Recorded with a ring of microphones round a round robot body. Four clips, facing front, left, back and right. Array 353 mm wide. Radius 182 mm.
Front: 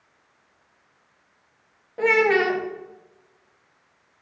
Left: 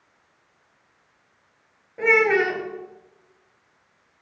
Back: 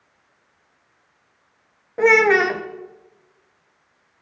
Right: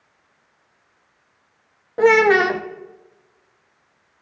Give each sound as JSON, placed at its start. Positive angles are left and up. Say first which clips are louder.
{"t": 2.0, "sound": "a child speaking", "louder": "right 6 dB, back 4 dB", "azimuth_deg": -120, "distance_m": 0.7}